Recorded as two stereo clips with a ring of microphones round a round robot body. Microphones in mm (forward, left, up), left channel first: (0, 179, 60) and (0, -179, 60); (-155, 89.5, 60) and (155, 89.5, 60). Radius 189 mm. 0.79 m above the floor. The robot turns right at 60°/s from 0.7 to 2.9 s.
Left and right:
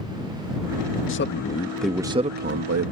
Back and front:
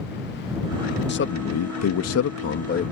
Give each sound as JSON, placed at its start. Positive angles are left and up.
{"t": 1.1, "sound": "a man speaking", "azimuth_deg": 135}